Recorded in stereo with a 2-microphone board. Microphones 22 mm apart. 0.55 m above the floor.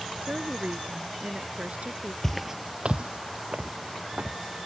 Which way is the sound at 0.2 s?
75° right (ahead or behind).